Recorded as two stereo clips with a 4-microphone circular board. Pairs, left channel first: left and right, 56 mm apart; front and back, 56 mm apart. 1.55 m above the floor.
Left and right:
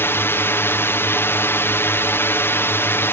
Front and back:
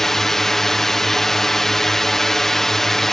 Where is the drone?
80° left.